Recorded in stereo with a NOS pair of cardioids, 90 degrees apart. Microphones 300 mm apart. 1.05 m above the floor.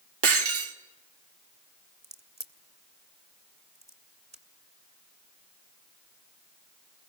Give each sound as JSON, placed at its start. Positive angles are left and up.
{"t": 0.2, "sound": "breaking glass", "azimuth_deg": -50, "distance_m": 1.7}
{"t": 2.0, "sound": "a crack", "azimuth_deg": -20, "distance_m": 2.0}